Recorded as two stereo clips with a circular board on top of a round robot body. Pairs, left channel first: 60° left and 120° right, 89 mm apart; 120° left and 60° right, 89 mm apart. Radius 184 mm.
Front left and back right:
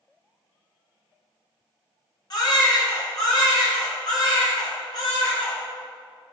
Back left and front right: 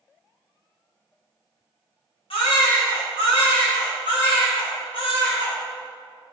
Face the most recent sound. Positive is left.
turn(degrees=105)